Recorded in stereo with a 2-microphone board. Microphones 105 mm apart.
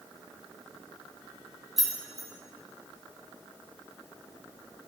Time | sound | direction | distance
1.8 | keys jangling | centre (ahead or behind) | 1.0 m